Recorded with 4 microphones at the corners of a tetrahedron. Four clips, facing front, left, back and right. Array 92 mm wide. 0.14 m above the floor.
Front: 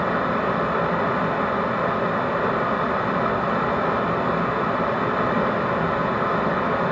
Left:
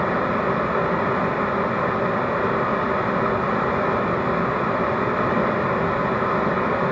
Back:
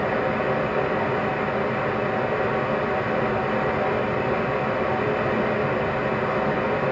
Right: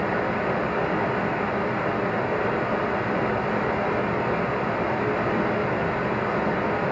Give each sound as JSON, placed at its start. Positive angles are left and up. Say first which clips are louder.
{"t": 0.0, "sound": "running water", "louder": "left 3 dB, front 1 dB", "azimuth_deg": 50, "distance_m": 0.9}